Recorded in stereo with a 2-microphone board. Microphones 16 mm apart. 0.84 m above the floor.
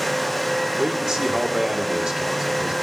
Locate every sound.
0.8 s a man speaking: 60° right (ahead or behind), 2.5 m